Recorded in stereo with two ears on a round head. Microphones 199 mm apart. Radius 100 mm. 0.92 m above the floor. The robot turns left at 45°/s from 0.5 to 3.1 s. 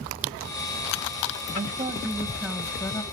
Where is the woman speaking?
145° right, 1.1 m; by 3.0 s 150° left, 1.1 m.